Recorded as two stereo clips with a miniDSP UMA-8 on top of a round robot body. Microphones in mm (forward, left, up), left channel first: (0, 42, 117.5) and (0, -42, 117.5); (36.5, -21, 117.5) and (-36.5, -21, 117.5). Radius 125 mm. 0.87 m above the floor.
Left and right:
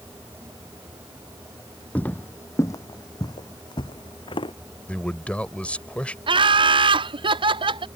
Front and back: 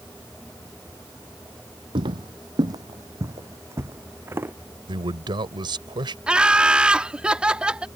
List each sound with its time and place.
1.9 s footsteps: 160° left; by 4.5 s 115° left
4.9 s a man speaking: 165° left
6.3 s laughter: 100° right